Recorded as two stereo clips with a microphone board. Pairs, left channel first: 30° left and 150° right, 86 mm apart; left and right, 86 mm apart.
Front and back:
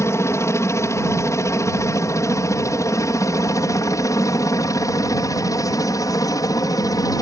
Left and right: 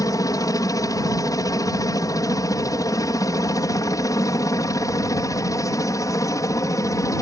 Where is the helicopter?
70° left; by 7.2 s 55° left.